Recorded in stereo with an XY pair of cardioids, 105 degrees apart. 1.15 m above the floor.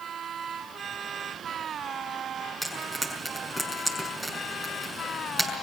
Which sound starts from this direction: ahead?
Frying, at 2.6 s.